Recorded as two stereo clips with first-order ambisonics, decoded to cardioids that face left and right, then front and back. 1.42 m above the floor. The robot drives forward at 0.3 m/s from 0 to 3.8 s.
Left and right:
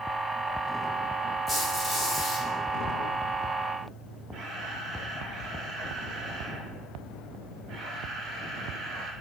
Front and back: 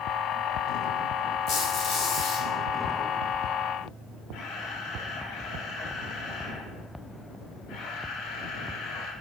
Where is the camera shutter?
40° right, 0.8 m.